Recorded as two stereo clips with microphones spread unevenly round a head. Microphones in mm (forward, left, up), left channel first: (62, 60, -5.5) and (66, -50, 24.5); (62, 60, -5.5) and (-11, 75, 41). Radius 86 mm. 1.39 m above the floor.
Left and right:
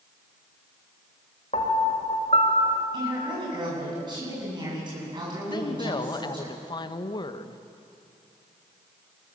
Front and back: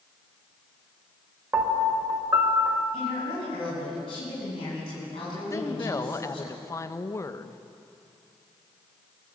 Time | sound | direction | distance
1.5 | a piano | 155° left | 1.7 m
2.9 | a woman speaking | 45° right | 9 m
5.5 | a woman speaking | 40° left | 1.3 m